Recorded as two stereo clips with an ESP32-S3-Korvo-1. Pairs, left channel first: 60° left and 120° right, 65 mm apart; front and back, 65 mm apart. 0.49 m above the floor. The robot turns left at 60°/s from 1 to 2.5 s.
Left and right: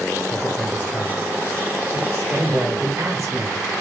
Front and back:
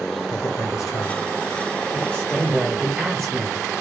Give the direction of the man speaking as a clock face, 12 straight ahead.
12 o'clock.